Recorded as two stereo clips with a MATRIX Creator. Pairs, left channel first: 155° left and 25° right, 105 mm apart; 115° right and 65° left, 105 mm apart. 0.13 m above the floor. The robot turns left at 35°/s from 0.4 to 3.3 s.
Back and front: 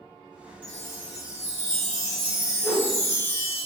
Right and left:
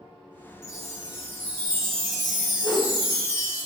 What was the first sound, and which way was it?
A chime, 145° right.